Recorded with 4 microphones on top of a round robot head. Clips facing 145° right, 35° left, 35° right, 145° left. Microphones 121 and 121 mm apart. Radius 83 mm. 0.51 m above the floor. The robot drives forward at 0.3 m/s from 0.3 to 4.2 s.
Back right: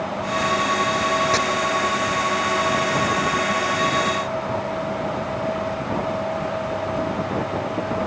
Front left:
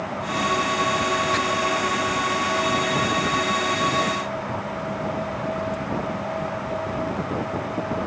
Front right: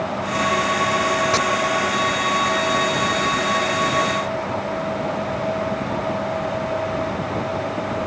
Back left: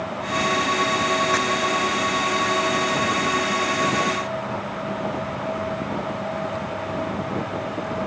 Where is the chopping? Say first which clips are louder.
Back right 3 dB, front right 2 dB; 95° right.